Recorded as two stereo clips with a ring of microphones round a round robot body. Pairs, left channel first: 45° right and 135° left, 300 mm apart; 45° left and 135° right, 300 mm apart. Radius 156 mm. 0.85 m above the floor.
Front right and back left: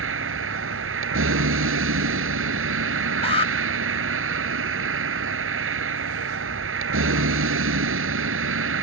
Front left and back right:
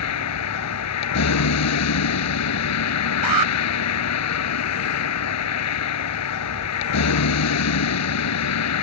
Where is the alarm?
115° right.